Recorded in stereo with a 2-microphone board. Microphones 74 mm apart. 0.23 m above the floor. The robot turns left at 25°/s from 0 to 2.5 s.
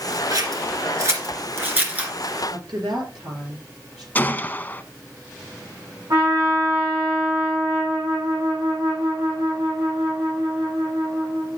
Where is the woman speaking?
75° right (ahead or behind), 4 m.